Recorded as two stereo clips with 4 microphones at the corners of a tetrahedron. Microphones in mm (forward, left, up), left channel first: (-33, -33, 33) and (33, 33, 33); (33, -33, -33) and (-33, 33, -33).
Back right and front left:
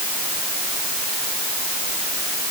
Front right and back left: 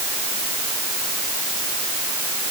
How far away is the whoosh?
No whoosh in this recording.